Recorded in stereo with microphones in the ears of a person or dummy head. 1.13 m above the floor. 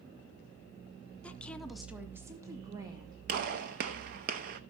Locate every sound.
1.2 s a woman speaking: 10° left (ahead or behind), 0.7 m; by 3.2 s 20° right (ahead or behind), 1.1 m
3.3 s a gunshot: 50° right (ahead or behind), 0.7 m